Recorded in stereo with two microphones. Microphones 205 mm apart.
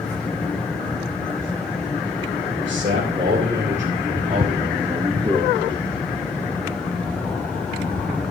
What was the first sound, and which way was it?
A man speaking, 55° right (ahead or behind).